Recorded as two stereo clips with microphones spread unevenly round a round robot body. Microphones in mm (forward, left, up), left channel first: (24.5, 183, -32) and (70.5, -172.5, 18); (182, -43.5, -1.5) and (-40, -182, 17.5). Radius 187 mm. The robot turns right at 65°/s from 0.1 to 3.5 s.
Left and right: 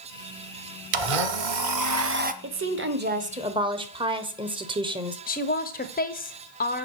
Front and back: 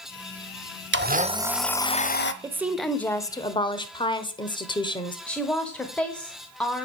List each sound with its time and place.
0.9 s a blender: 100° right, 0.9 m; by 2.3 s 10° right, 0.9 m
2.4 s a woman speaking: 75° right, 1.1 m; by 5.2 s 5° right, 1.1 m
5.3 s a woman speaking: 105° left, 0.9 m